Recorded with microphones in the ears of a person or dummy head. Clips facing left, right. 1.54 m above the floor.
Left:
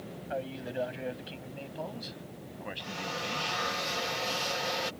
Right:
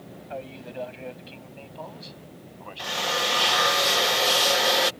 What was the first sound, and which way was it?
A man speaking, 5° left (ahead or behind).